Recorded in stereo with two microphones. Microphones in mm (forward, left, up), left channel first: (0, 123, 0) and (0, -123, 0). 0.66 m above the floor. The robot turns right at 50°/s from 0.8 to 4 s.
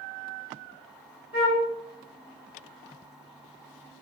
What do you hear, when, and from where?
1.3 s a flute: 45° left (ahead or behind), 2.5 m; by 1.7 s 30° left (ahead or behind), 2.5 m